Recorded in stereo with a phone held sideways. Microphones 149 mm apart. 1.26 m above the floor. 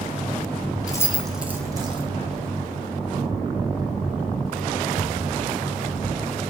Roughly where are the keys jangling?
Left.